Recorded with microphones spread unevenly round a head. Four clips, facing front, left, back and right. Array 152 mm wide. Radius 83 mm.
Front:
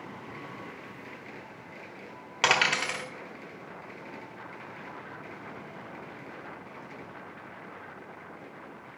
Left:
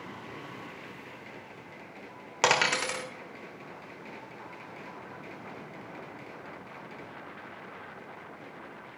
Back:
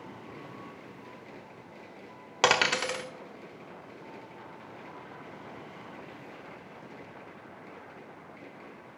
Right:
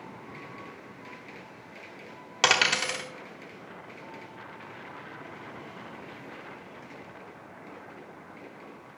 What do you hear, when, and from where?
2.4 s a dropped coin: 165° left, 0.9 m